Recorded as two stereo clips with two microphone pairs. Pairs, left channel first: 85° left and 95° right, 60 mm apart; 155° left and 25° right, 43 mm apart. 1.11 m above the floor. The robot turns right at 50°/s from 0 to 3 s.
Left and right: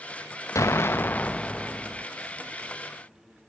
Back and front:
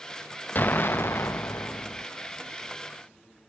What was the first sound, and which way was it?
An explosion, 115° left.